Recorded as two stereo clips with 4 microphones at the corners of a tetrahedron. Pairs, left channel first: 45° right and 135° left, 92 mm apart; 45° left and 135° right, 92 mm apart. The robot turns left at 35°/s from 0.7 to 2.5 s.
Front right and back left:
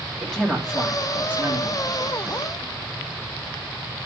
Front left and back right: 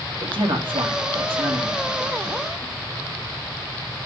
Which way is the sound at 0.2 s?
130° right.